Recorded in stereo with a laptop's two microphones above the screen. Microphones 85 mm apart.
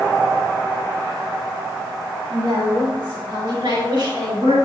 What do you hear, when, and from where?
2.3 s a woman speaking: 70° right (ahead or behind), 3 m; by 4.6 s 60° right (ahead or behind), 4.5 m